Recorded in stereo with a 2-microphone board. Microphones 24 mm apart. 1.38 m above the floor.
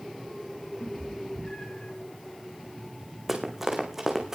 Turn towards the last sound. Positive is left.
turn(degrees=-20)  # may be behind; listen again after turning